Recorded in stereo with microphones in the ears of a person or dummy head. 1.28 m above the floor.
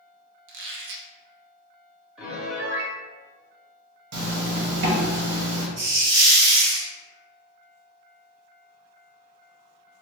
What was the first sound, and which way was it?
A squeak, 60° right (ahead or behind).